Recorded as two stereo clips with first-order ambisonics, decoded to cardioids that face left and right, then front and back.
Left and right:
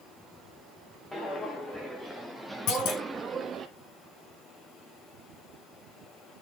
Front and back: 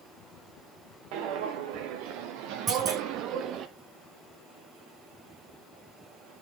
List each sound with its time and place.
1.1 s footsteps: 170° left, 2.5 m; by 3.7 s 135° right, 0.9 m
2.7 s a clunk: 115° left, 8 m